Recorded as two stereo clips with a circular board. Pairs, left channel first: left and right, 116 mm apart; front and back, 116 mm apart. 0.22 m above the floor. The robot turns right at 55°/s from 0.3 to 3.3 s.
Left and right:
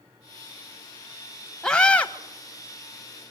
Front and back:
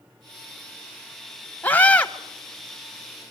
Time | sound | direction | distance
1.6 | a scream | 25° left | 1.0 m